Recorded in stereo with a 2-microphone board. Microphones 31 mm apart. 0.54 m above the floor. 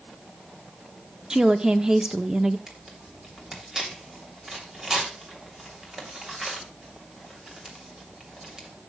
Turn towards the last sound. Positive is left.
turn(degrees=-20)  # may be behind; listen again after turning